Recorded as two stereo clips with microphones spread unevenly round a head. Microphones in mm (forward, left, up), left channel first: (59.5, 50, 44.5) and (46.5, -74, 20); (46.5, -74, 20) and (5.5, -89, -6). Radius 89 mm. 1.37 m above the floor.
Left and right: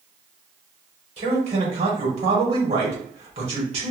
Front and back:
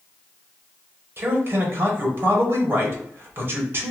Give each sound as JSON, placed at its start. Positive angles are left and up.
{"t": 1.2, "sound": "a man speaking", "azimuth_deg": -145, "distance_m": 1.3}